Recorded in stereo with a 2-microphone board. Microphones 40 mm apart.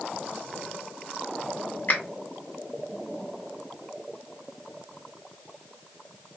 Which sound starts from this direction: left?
A finger snap, at 1.9 s.